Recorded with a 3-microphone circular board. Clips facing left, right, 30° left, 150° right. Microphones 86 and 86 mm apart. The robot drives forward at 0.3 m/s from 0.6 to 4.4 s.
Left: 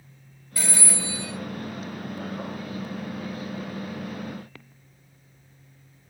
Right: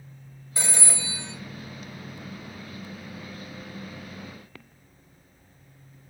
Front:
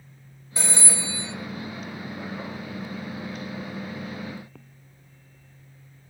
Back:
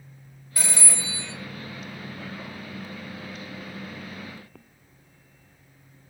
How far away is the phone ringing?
About 0.7 m.